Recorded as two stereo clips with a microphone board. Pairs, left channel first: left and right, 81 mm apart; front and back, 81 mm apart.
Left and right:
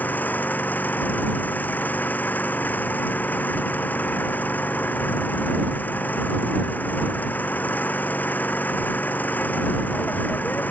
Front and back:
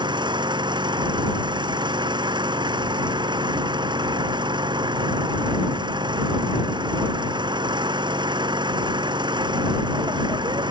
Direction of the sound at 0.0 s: 160° left.